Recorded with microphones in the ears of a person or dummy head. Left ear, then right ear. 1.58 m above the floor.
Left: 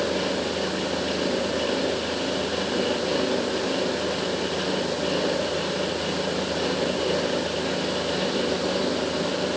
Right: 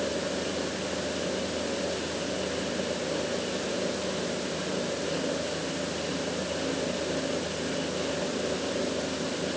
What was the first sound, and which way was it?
Only background noise.